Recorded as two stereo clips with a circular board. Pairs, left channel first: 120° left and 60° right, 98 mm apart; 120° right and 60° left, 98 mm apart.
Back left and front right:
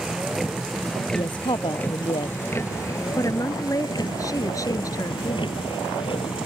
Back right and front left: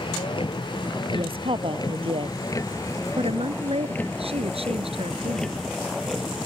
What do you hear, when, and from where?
0.0 s a vehicle: 145° right; by 6.5 s 145° left
1.1 s a woman speaking: 85° left
3.2 s a woman speaking: 65° left